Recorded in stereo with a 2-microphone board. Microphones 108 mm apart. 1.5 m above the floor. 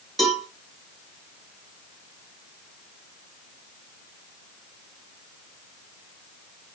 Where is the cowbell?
Centre (ahead or behind), 1.4 m.